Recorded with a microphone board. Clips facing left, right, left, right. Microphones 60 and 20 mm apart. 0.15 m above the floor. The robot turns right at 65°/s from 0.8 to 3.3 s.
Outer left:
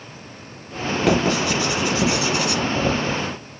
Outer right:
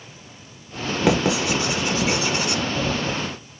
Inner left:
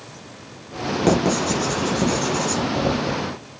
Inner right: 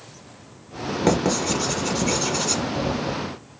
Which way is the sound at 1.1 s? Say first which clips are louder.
Outer left 1 dB, inner left 2 dB; 5° right (ahead or behind).